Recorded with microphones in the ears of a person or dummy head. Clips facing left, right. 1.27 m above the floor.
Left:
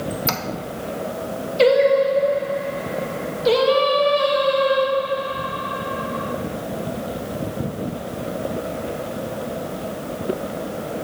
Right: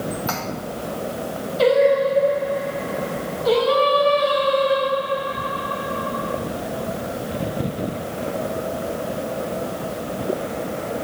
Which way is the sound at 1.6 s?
35° left (ahead or behind).